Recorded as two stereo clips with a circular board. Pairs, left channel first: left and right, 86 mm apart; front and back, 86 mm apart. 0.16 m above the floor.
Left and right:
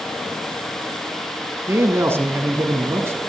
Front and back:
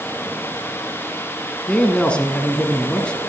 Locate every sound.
1.7 s a man speaking: 65° right, 1.3 m